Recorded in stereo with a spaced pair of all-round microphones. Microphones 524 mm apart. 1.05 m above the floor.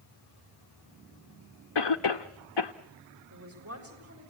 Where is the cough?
50° left (ahead or behind), 0.7 m.